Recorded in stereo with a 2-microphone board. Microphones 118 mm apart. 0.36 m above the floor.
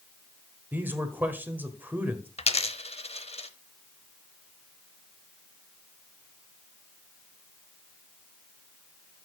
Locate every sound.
0.7 s a man speaking: 15° right (ahead or behind), 1.3 m
2.4 s a dropped coin: 60° left (ahead or behind), 0.7 m